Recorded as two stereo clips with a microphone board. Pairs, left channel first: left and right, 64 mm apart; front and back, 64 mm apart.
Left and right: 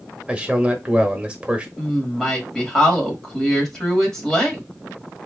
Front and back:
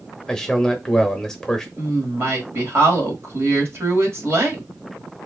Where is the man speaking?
65° right, 0.9 m.